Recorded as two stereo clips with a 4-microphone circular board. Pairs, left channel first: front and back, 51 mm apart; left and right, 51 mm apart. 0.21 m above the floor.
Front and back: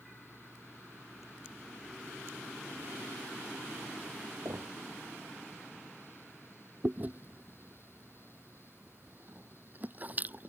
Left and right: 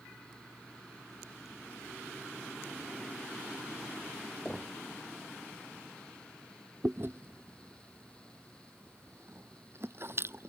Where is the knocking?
170° left.